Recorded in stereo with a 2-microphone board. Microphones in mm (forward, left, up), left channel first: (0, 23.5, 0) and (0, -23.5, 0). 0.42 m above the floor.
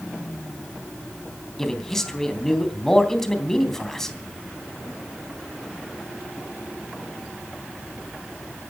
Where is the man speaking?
10° left (ahead or behind), 3 m.